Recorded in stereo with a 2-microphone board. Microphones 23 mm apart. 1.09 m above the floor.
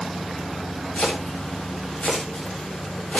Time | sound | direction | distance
0.9 | chopping | 70° left (ahead or behind) | 7.5 m